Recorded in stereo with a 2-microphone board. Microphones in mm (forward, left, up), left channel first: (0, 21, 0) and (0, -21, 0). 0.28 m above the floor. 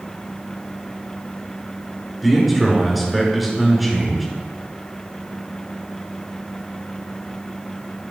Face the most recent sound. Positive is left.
turn(degrees=-5)  # may be behind; listen again after turning